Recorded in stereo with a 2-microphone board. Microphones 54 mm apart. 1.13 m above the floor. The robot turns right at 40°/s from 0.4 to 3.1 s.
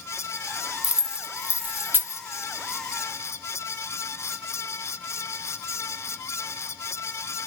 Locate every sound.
0.8 s keys jangling: 5° right (ahead or behind), 0.6 m; by 2.2 s 45° right (ahead or behind), 0.6 m